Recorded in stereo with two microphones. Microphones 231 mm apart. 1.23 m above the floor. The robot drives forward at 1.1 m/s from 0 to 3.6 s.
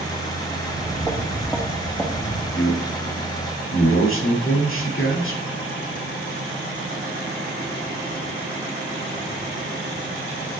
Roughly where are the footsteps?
Centre.